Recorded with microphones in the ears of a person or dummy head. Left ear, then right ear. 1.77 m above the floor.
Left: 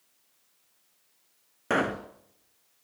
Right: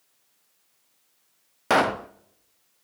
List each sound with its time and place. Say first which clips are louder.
1.7 s a pop: right 6 dB; 25° right (ahead or behind), 0.7 m